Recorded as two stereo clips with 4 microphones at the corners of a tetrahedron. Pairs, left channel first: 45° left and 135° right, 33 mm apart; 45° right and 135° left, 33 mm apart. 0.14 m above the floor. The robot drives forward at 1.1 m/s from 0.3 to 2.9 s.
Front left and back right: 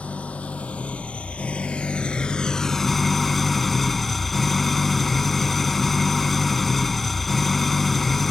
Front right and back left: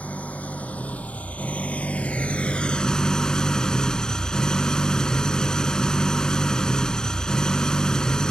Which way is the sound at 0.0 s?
5° right.